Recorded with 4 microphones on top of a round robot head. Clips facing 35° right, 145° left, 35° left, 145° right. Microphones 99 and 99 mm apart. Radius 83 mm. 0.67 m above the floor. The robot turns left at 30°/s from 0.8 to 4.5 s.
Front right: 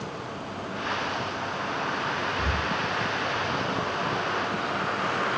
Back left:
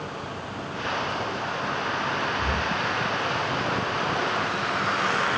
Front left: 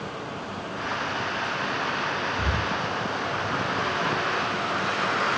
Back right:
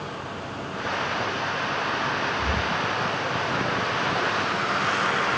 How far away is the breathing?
About 1.1 m.